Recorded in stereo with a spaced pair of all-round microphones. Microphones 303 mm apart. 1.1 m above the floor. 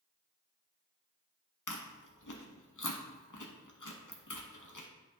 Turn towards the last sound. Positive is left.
turn(degrees=80)